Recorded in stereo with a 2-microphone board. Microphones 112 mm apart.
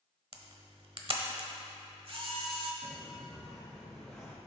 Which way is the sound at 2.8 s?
5° right (ahead or behind).